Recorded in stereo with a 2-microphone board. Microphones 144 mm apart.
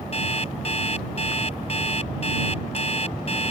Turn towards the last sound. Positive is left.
turn(degrees=45)  # may be behind; listen again after turning